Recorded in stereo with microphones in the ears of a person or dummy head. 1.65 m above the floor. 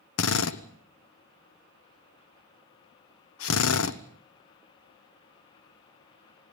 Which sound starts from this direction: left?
A drill, at 0.2 s.